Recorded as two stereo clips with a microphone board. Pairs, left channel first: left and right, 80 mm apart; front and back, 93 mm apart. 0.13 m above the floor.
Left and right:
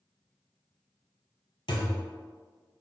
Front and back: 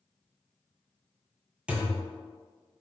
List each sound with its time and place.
1.7 s a thud: 105° left, 0.7 m